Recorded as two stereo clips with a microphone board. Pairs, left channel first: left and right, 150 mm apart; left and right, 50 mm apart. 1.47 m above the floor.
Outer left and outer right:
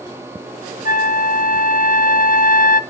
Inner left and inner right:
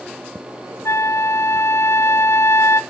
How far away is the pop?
I don't hear a pop.